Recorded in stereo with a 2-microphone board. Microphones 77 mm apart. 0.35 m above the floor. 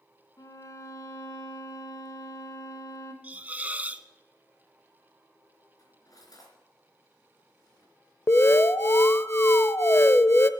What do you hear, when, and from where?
0.4 s a violin: 45° left (ahead or behind), 1.3 m
3.2 s a hiss: 20° right (ahead or behind), 0.7 m
5.8 s cutlery clinking: 50° left (ahead or behind), 3.5 m
8.3 s an alarm: 30° left (ahead or behind), 0.6 m